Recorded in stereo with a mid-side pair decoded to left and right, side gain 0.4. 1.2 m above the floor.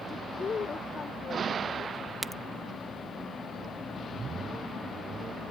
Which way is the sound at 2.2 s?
20° right.